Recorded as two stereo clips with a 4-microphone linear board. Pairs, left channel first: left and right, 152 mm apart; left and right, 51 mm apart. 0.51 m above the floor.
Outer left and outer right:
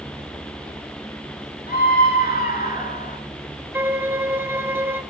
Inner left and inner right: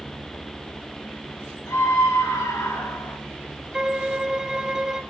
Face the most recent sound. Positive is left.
turn(degrees=-15)  # may be behind; listen again after turning